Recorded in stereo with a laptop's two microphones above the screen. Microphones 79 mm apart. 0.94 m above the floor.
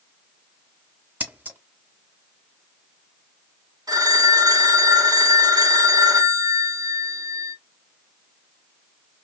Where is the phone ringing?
55° right (ahead or behind), 1.4 m.